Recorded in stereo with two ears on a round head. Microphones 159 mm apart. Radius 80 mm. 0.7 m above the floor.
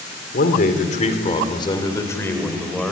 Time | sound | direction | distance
0.3 | a man speaking | 60° left (ahead or behind) | 3 m